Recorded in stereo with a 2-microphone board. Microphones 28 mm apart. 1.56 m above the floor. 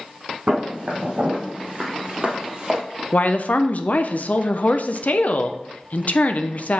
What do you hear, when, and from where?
0.5 s footsteps: 40° right (ahead or behind), 3.5 m; by 2.8 s 20° right (ahead or behind), 1.6 m
3.1 s a woman speaking: 60° left (ahead or behind), 0.7 m